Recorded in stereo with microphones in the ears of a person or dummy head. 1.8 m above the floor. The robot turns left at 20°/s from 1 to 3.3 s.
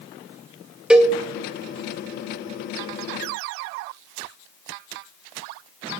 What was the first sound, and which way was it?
A cowbell, 5° right (ahead or behind).